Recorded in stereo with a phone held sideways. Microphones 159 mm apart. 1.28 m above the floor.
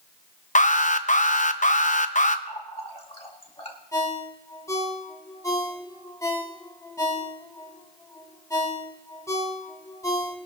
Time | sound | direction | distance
0.6 | an alarm | 50° left (ahead or behind) | 0.6 m
2.5 | a running tap | 35° left (ahead or behind) | 1.7 m
3.9 | a ringtone | 20° left (ahead or behind) | 1.8 m